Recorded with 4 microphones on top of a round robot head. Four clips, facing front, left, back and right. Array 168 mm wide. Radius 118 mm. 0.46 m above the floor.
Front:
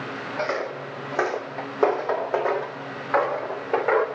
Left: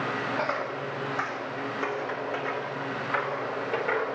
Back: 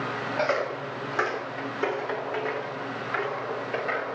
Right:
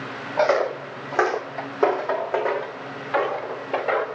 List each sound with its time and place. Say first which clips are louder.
0.4 s footsteps: right 9 dB, back 1 dB; 90° right, 1.0 m; by 4.1 s 15° right, 2.5 m